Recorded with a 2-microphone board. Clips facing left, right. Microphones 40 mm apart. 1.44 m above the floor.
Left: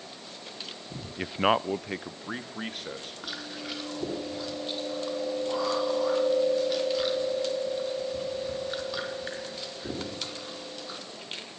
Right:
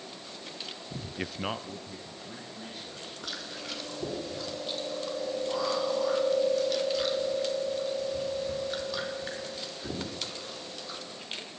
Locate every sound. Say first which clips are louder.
1.2 s a man speaking: left 10 dB; 5° right (ahead or behind), 0.5 m; by 3.1 s 85° left, 2.5 m
3.2 s chewing: left 1 dB; 10° left (ahead or behind), 4.5 m